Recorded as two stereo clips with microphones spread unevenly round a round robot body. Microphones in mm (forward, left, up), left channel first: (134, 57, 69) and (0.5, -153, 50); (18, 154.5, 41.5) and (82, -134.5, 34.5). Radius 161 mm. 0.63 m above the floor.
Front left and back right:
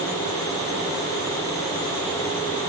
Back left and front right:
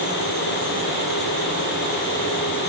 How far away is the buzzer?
No buzzer in this recording.